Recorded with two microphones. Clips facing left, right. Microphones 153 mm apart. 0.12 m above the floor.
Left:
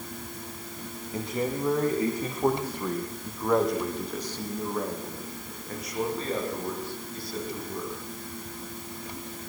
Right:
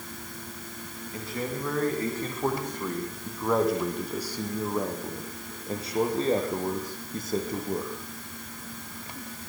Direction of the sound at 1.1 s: 20° left (ahead or behind).